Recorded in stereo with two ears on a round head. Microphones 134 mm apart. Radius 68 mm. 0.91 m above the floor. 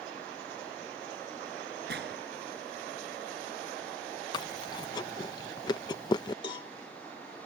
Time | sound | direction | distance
1.9 | a gunshot | 70° right (ahead or behind) | ?
4.3 | chewing | 30° left (ahead or behind) | ?
6.4 | a cowbell | 30° left (ahead or behind) | ?